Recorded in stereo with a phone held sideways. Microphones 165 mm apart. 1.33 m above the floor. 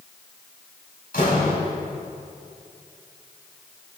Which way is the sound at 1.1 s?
70° left (ahead or behind).